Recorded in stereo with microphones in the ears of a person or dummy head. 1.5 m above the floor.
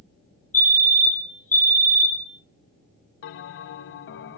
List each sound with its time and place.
0.5 s a fire alarm: 10° left (ahead or behind), 0.8 m
3.2 s a bell: 60° left (ahead or behind), 0.6 m